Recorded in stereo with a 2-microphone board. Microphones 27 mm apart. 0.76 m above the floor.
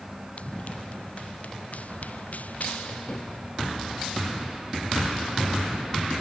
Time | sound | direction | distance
0.4 | running footsteps | 50° left (ahead or behind) | ?